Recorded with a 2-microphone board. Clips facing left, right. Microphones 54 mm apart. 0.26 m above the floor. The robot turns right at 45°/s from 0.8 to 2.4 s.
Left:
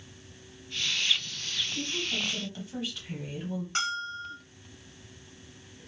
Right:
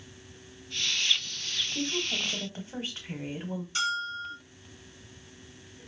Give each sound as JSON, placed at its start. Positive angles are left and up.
{"t": 1.8, "sound": "a woman speaking", "side_deg": -40, "distance_m": 1.3}
{"t": 3.8, "sound": "a bell", "side_deg": 45, "distance_m": 1.4}